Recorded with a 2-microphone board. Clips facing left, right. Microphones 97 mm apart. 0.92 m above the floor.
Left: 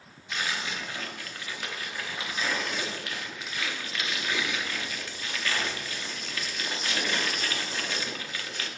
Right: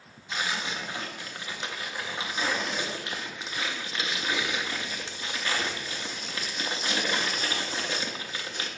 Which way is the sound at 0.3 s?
25° right (ahead or behind).